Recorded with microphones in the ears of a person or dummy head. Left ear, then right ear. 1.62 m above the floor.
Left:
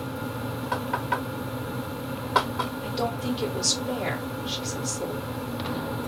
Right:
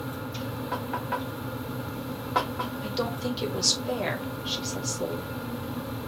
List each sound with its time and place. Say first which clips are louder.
0.7 s knocking: left 4 dB; 15° left (ahead or behind), 1.3 m
2.8 s a woman speaking: left 2 dB; 40° right (ahead or behind), 2 m